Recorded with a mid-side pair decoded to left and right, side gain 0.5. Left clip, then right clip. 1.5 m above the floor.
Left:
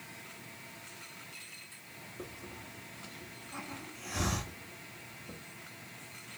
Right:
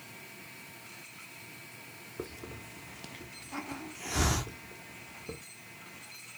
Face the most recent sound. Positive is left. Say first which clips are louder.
# right 5 dB
turn(degrees=-55)